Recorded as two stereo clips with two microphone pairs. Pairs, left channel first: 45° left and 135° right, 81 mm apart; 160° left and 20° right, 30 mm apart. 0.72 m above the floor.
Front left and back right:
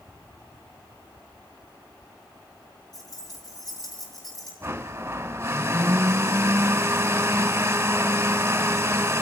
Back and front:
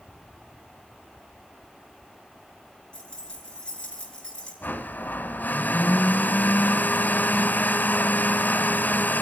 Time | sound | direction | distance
2.9 | keys jangling | 95° left | 6.5 m
4.6 | a blender | 165° left | 1.6 m